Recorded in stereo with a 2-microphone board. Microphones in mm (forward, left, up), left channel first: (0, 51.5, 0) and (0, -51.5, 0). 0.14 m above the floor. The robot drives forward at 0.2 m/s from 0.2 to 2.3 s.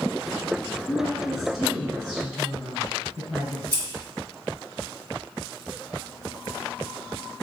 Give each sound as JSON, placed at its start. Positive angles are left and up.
{"t": 0.9, "sound": "a woman speaking", "side_deg": 0, "distance_m": 1.6}
{"t": 3.7, "sound": "scissors", "side_deg": 20, "distance_m": 1.4}